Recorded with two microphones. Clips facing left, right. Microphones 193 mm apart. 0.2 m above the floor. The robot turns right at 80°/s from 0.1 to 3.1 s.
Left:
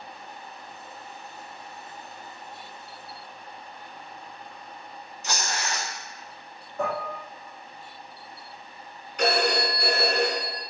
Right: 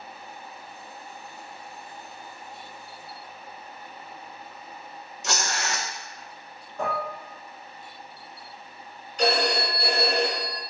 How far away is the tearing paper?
About 0.5 m.